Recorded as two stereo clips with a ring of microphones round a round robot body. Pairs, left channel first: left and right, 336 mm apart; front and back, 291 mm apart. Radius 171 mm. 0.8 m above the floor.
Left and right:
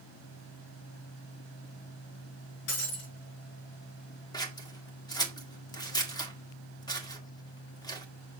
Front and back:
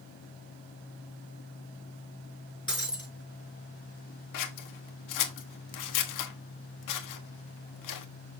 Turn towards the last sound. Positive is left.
turn(degrees=10)